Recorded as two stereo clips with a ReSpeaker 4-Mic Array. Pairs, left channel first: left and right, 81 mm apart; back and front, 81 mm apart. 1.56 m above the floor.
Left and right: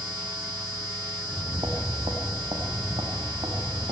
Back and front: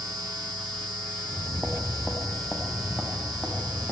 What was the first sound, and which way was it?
Footsteps, 75° right.